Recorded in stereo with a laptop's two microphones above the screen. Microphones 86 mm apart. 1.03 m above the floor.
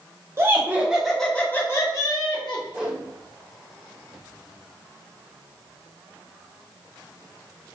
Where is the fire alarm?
No fire alarm in this recording.